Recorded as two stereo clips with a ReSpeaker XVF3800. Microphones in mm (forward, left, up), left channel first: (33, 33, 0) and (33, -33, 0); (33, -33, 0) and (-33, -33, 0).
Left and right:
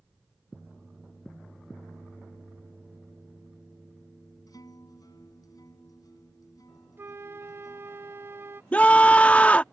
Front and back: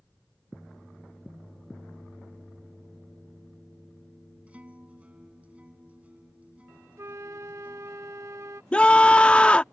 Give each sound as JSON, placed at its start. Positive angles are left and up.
{"t": 4.5, "sound": "a guitar", "azimuth_deg": 110}
{"t": 7.0, "sound": "a flute", "azimuth_deg": -140}
{"t": 8.7, "sound": "a scream", "azimuth_deg": 50}